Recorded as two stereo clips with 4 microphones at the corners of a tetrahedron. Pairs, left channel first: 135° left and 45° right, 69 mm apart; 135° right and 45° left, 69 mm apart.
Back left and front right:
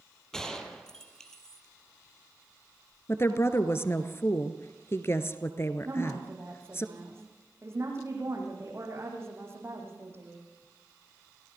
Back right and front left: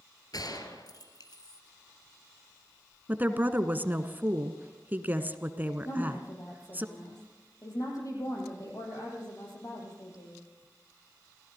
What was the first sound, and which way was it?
A gunshot, 145° right.